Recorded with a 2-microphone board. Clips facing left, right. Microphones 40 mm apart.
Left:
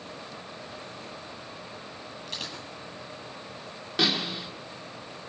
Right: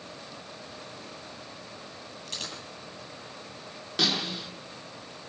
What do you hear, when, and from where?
2.3 s a dropped coin: 10° left (ahead or behind), 9.5 m
4.0 s a snare drum: 10° left (ahead or behind), 5 m